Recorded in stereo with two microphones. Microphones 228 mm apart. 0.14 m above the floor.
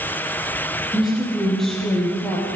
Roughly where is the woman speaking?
Centre.